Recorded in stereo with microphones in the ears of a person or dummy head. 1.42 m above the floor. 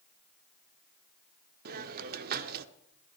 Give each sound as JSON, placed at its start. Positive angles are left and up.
{"t": 1.6, "sound": "a hiss", "side_deg": -50, "distance_m": 0.6}